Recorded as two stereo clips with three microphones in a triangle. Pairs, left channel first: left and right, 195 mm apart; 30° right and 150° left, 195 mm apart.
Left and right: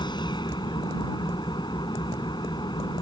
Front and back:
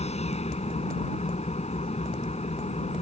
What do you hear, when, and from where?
0.0 s an engine running: 25° left